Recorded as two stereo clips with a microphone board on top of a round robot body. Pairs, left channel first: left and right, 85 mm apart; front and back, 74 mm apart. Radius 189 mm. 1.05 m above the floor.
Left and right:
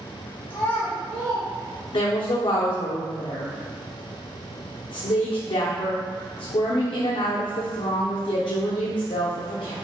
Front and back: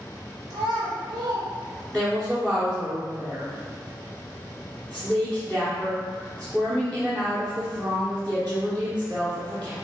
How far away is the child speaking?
About 0.6 m.